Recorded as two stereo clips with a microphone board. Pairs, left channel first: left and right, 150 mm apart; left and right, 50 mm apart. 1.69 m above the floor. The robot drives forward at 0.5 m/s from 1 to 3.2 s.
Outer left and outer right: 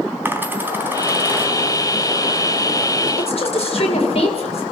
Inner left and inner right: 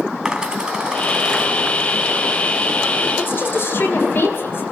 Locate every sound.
0.2 s a dropped coin: 15° right (ahead or behind), 3.5 m
3.2 s a woman speaking: 45° left (ahead or behind), 7.5 m